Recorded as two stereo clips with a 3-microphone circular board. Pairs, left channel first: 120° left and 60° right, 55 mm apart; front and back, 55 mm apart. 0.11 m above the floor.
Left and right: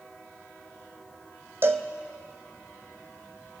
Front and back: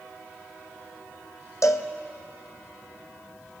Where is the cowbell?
15° right, 0.8 m.